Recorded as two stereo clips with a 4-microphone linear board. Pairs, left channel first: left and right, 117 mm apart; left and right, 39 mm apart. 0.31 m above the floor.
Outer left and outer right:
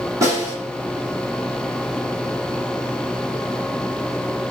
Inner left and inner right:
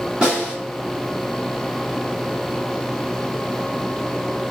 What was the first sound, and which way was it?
A snare drum, 25° right (ahead or behind).